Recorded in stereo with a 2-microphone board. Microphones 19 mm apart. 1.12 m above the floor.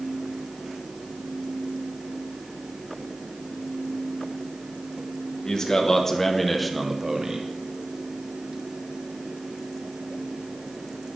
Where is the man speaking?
40° left (ahead or behind), 1.0 m; by 7.5 s 40° right (ahead or behind), 0.6 m.